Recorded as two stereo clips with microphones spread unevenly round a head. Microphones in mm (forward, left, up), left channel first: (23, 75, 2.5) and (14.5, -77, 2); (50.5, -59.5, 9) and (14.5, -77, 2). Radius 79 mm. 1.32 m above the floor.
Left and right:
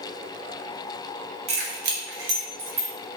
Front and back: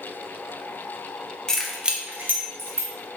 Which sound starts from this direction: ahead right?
Keys jangling, at 1.5 s.